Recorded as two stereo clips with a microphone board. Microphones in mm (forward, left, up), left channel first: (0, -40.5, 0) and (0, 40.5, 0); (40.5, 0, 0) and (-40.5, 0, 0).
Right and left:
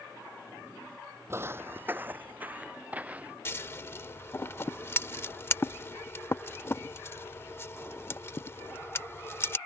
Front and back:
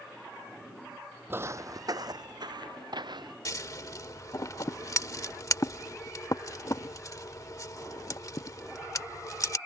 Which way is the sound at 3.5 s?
35° right.